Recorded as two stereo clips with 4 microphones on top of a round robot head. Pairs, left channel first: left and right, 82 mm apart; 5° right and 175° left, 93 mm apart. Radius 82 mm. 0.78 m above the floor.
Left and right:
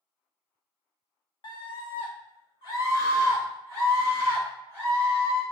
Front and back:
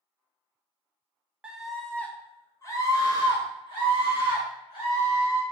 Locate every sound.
1.4 s a scream: 95° left, 0.9 m; by 5.4 s 20° left, 2.5 m